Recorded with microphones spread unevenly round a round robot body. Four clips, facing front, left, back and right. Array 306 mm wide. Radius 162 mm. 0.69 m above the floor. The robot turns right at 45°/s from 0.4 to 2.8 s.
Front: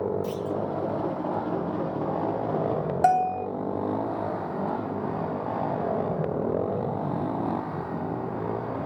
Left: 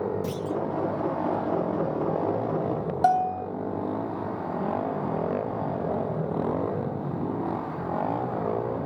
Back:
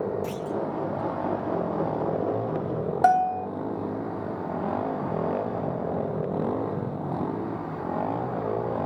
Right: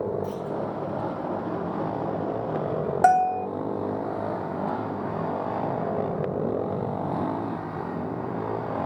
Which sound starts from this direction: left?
A clunk, at 0.2 s.